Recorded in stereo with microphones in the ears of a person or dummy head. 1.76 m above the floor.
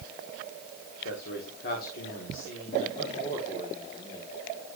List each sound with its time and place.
1.1 s a man speaking: 65° left (ahead or behind), 2 m; by 4.3 s 20° left (ahead or behind), 2 m